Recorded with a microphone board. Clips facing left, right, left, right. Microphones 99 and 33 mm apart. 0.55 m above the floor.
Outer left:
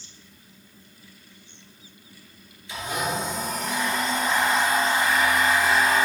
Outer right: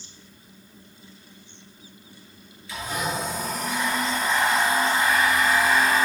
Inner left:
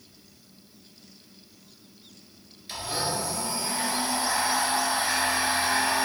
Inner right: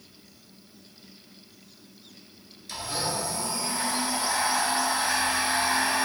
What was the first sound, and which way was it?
A blender, 20° left (ahead or behind).